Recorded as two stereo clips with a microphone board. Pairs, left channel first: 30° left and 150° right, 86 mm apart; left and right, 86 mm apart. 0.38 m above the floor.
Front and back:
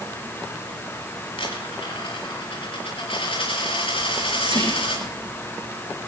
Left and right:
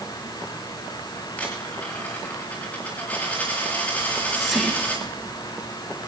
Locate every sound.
1.4 s a dropped coin: 15° left, 6.5 m
4.0 s whispering: straight behind, 10 m